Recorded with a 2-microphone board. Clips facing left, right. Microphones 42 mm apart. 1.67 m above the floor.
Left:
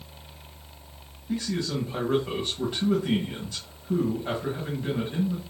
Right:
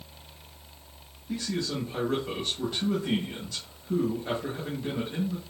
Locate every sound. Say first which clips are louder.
1.3 s a man speaking: left 2 dB; 15° left (ahead or behind), 1.2 m